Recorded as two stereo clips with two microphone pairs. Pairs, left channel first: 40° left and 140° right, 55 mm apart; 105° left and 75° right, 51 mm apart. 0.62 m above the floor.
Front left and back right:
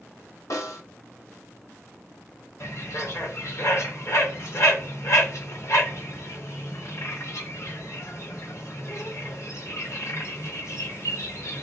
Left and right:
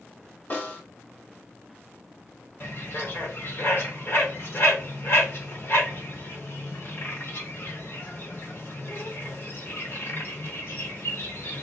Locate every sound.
0.5 s a snare drum: 50° left, 1.2 m
2.6 s a bird: 65° left, 0.9 m